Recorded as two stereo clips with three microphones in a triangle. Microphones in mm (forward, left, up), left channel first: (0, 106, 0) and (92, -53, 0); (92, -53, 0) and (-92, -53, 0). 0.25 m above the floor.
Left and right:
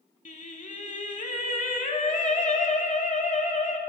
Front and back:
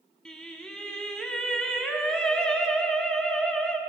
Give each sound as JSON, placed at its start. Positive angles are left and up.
{"t": 0.2, "sound": "singing", "azimuth_deg": 85, "distance_m": 1.0}